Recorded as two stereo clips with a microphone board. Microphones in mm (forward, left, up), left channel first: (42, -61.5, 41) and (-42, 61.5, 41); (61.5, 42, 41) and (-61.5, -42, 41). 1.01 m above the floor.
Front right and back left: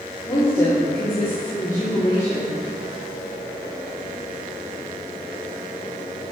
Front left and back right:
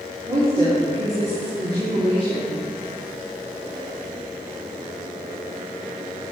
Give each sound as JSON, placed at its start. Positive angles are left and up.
{"t": 0.2, "sound": "a woman speaking", "azimuth_deg": -120, "distance_m": 2.5}